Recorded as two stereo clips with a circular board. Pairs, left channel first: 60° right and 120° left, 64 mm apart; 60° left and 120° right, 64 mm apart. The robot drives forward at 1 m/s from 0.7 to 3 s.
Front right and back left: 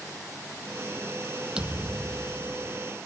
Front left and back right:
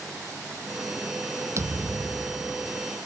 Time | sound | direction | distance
1.6 | a thud | 165° right | ?